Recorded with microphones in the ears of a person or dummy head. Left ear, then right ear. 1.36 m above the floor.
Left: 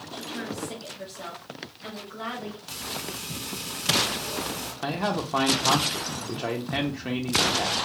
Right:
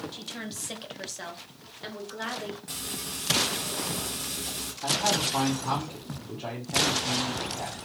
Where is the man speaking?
80° left, 0.6 m.